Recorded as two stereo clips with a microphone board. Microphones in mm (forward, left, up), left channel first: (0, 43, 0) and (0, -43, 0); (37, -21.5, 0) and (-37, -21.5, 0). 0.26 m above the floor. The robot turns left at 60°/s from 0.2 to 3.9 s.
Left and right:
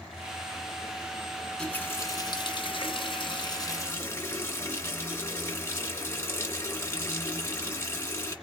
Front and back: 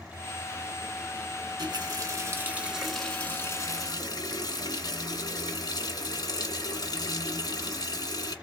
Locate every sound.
1.6 s a running tap: 165° left, 1.8 m; by 8.3 s 30° left, 1.8 m